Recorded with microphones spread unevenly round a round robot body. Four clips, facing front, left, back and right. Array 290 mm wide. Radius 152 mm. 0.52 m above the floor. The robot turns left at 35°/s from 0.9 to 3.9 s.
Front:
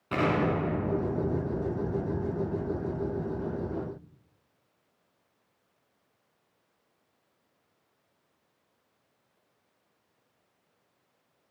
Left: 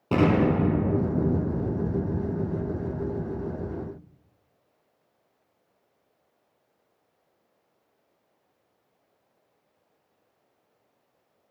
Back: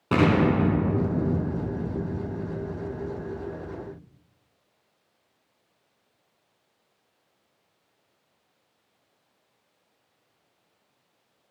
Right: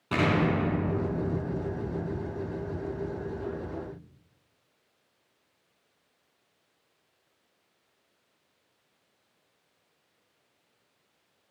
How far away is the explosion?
About 2 m.